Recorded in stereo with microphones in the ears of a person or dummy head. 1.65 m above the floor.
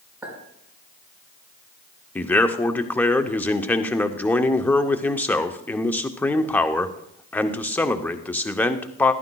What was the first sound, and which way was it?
A clink, 5° right (ahead or behind).